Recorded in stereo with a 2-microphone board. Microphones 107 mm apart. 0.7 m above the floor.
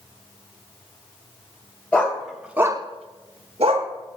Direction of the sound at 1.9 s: 15° left (ahead or behind).